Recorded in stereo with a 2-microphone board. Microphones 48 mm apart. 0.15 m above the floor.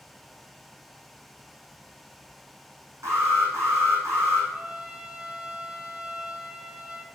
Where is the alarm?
80° right, 5.5 m.